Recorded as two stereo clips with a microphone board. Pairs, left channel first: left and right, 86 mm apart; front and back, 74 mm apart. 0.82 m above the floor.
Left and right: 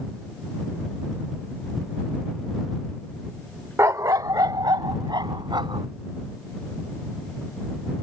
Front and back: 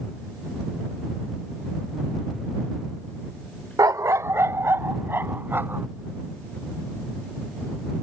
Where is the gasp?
I don't hear a gasp.